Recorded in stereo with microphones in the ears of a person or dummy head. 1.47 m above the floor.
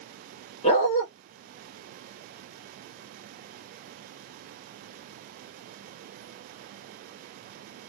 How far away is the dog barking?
About 1.9 m.